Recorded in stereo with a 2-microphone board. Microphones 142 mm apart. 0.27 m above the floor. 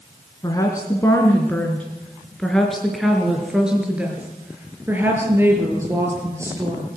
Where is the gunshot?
No gunshot in this recording.